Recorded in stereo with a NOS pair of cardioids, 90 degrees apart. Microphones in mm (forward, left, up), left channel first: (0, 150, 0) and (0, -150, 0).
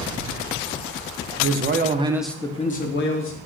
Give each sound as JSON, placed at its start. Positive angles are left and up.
{"t": 1.4, "sound": "a man speaking", "azimuth_deg": -55, "distance_m": 0.7}